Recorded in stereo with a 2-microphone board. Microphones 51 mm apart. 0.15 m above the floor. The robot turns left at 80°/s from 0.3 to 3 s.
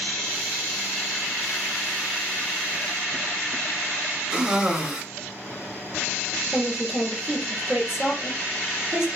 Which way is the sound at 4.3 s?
15° right (ahead or behind).